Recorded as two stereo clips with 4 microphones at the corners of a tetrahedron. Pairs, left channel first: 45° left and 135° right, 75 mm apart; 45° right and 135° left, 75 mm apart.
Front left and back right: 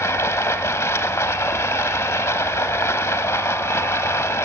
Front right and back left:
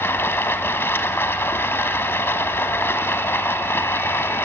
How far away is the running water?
About 0.9 m.